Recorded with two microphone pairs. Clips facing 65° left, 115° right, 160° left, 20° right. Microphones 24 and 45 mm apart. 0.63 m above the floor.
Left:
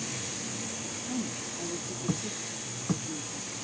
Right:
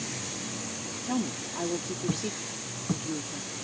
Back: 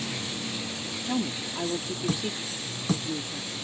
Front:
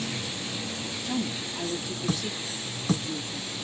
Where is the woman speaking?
135° right.